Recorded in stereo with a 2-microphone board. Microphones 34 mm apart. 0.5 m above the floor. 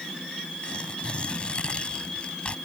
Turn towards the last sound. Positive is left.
turn(degrees=30)  # may be behind; listen again after turning